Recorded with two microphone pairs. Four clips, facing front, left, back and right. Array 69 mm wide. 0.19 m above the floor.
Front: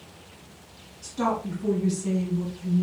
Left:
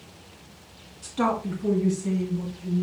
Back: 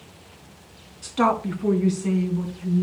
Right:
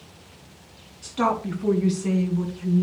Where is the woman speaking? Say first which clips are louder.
Right 2 dB, back 5 dB; straight behind, 1.8 m; by 2.8 s 105° right, 2.5 m.